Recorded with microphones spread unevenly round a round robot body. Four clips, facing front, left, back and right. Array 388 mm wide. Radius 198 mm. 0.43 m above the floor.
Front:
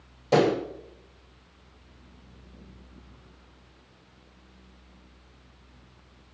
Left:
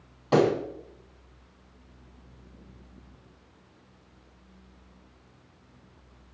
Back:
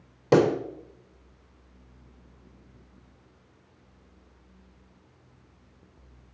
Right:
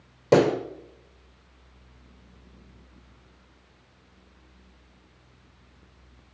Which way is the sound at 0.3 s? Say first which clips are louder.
Right 3 dB, back 1 dB; 135° right.